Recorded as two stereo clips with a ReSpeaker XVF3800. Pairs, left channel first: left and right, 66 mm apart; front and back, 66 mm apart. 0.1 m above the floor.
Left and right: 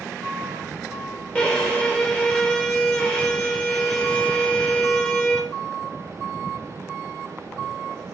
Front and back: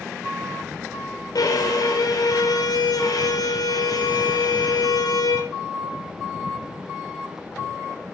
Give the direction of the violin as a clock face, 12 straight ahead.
11 o'clock.